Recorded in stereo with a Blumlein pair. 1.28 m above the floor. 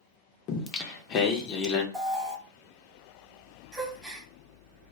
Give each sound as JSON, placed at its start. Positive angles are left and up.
{"t": 0.5, "sound": "singing", "azimuth_deg": 35, "distance_m": 0.6}
{"t": 1.9, "sound": "an alarm", "azimuth_deg": -5, "distance_m": 1.1}
{"t": 3.7, "sound": "a gasp", "azimuth_deg": -5, "distance_m": 0.7}